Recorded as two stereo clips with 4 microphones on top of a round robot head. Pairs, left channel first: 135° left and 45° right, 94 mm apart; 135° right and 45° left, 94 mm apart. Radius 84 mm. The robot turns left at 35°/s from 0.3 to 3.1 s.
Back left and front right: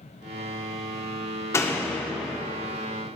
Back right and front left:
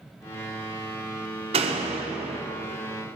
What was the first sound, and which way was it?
A door slam, 70° left.